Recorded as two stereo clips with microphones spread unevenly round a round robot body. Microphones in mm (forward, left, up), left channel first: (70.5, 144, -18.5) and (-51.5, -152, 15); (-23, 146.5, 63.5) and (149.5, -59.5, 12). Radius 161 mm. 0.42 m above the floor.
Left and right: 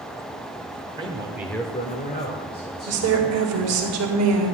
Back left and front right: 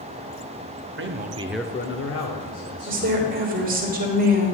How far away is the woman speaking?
About 1.8 m.